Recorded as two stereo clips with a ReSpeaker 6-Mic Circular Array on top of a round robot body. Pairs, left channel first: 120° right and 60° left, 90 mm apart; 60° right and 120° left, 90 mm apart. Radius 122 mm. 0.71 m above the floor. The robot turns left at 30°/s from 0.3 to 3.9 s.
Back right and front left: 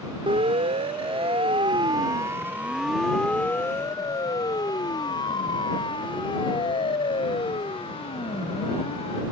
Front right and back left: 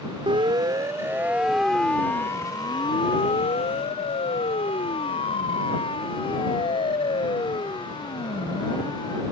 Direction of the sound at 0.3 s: 90° left.